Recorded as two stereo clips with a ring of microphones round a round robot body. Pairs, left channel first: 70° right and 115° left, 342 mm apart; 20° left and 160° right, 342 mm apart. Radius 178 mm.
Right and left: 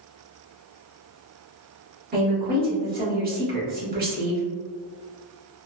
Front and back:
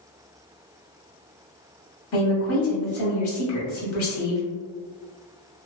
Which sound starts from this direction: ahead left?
A woman speaking, at 2.1 s.